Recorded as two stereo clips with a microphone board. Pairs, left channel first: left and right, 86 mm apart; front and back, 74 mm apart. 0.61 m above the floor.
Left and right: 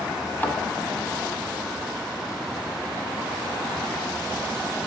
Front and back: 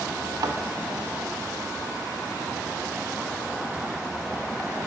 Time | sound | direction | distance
0.4 | a thud | 155° left | 1.2 m